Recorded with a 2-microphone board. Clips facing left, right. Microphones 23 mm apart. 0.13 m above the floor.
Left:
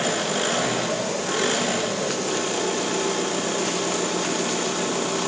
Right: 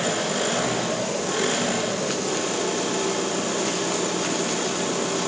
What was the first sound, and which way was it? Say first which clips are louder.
An engine running: left 1 dB; 20° left (ahead or behind).